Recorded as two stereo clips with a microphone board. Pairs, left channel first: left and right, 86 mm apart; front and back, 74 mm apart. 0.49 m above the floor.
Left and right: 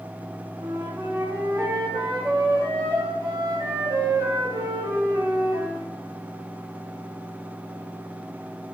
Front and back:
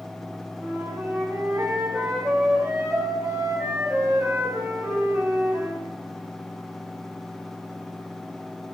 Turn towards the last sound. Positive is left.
turn(degrees=-110)